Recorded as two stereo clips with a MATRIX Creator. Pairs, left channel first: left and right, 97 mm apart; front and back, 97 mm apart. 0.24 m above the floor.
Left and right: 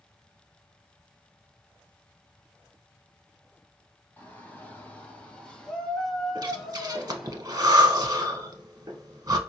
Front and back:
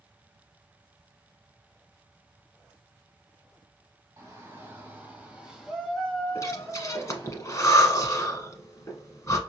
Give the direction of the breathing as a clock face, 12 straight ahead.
2 o'clock.